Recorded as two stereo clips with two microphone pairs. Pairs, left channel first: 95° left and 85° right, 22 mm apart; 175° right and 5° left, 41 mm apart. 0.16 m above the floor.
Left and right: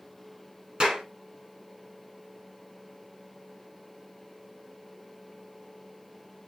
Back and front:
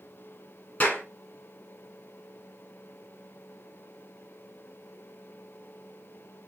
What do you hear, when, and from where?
0.8 s a clap: 130° right, 4 m